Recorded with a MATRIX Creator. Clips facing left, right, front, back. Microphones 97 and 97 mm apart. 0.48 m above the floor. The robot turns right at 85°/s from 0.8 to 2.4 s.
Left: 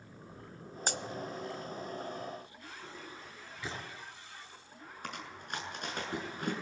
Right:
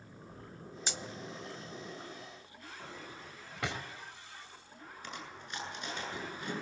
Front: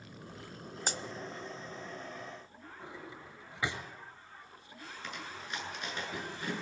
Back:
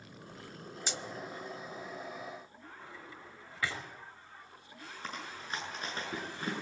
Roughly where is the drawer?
Right.